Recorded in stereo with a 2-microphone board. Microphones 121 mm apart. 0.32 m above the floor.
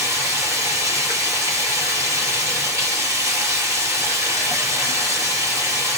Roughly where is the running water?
Right.